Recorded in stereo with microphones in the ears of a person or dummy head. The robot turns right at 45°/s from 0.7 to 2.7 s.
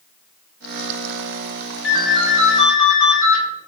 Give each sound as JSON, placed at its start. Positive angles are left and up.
{"t": 1.8, "sound": "a ringtone", "azimuth_deg": 105, "distance_m": 2.0}